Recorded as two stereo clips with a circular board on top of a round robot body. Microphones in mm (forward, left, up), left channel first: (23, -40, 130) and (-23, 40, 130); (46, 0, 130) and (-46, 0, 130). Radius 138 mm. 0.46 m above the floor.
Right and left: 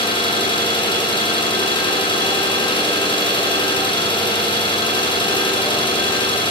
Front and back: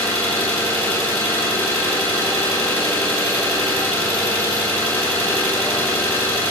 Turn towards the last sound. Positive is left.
turn(degrees=-70)